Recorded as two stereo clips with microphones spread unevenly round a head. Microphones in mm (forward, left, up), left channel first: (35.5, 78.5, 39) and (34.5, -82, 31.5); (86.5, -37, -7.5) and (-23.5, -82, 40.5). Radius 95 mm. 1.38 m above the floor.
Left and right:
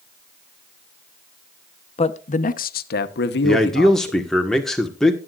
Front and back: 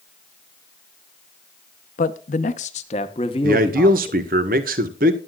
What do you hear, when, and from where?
2.0 s a man speaking: 40° left, 0.9 m; by 4.2 s 100° left, 1.3 m
3.4 s a man speaking: 175° left, 1.3 m